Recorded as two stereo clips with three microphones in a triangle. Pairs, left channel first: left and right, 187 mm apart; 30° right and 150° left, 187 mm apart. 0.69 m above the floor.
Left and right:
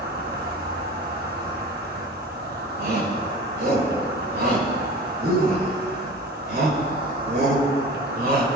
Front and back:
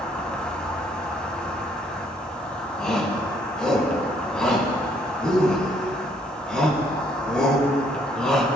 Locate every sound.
0.0 s an insect: 115° right, 1.8 m
2.8 s a shout: 115° right, 4.5 m